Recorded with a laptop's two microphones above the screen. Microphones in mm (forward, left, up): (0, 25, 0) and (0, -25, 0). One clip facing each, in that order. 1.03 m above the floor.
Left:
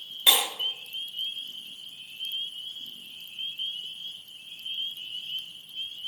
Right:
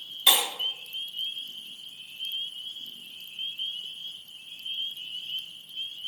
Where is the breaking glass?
10° left (ahead or behind), 3 m.